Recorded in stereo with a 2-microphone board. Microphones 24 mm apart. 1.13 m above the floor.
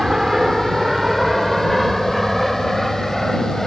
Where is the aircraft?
20° right (ahead or behind); by 3.7 s 5° left (ahead or behind).